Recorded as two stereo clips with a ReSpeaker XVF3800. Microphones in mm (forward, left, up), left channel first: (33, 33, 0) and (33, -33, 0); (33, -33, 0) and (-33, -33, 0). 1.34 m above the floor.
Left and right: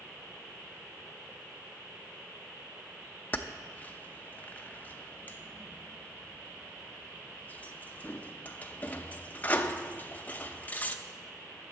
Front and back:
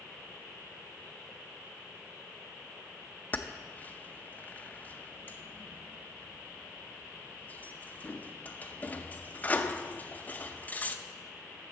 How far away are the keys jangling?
About 0.6 m.